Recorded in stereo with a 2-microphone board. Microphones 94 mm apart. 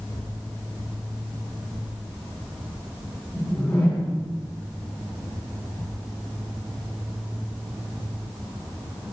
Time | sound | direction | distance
3.3 | a whoosh | 20° left (ahead or behind) | 7.5 m